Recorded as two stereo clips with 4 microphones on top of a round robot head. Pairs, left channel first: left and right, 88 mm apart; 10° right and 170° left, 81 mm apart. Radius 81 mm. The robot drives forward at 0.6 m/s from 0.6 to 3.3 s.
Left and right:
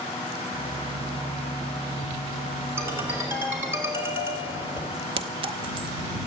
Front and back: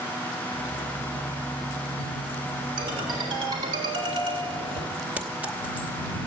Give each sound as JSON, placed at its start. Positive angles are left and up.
{"t": 2.8, "sound": "a ringtone", "azimuth_deg": -155, "distance_m": 3.5}
{"t": 5.2, "sound": "a clink", "azimuth_deg": -110, "distance_m": 0.7}